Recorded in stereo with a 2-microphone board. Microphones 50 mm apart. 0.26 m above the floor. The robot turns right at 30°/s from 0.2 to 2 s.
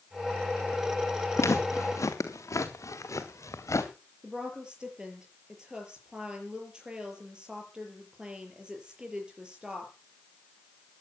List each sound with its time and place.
1.4 s footsteps: 60° left (ahead or behind), 3.5 m; by 3.9 s 75° left (ahead or behind), 3 m
4.2 s a woman speaking: 15° right (ahead or behind), 6.5 m